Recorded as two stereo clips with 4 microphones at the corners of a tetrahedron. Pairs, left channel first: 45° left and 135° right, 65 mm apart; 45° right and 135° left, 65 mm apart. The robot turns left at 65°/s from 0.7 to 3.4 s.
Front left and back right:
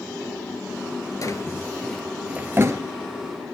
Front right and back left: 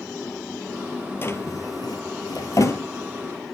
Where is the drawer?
10° left, 1.6 m; by 2.8 s 95° right, 1.6 m.